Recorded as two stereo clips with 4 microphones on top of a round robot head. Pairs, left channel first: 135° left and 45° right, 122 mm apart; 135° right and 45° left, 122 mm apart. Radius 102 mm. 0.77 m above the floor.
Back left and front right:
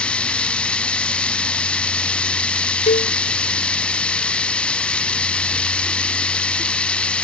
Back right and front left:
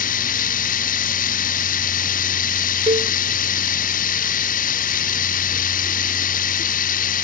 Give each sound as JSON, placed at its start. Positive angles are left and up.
{"t": 0.0, "sound": "running water", "azimuth_deg": -140}
{"t": 2.9, "sound": "a cowbell", "azimuth_deg": 95}